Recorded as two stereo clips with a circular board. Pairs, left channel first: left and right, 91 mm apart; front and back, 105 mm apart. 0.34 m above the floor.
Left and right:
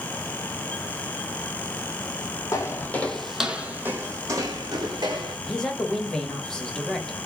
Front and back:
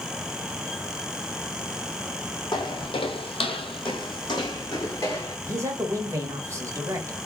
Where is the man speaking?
165° left, 1.0 m.